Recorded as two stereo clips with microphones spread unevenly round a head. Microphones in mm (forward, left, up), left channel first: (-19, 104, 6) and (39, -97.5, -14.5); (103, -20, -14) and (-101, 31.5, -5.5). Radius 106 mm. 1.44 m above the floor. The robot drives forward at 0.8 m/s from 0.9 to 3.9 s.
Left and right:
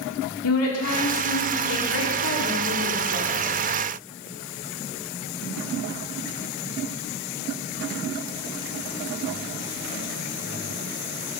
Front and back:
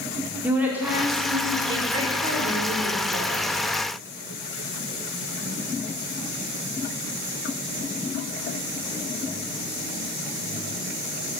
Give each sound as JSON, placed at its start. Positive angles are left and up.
{"t": 0.4, "sound": "a woman speaking", "azimuth_deg": 85, "distance_m": 3.5}